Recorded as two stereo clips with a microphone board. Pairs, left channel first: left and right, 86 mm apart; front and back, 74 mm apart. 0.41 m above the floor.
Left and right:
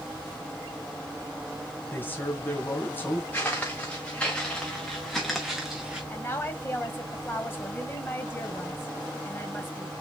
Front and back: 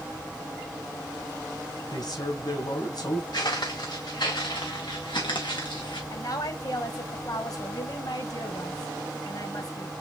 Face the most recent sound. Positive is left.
turn(degrees=25)